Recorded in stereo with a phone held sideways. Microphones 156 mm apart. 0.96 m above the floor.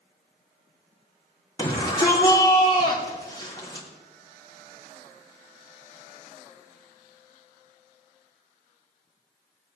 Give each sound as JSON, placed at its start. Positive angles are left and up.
{"t": 1.6, "sound": "a shout", "side_deg": 25, "distance_m": 3.0}